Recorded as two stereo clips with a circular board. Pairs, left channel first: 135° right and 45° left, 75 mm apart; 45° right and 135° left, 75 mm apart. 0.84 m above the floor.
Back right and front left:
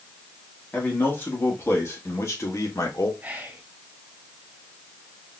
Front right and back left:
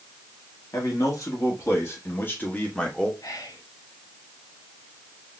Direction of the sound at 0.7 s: 70° right.